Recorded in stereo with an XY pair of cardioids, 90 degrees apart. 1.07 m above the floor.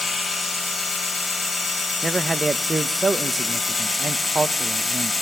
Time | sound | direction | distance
0.0 | a machine running | 20° left | 3 m
2.0 | a man speaking | 25° right | 0.7 m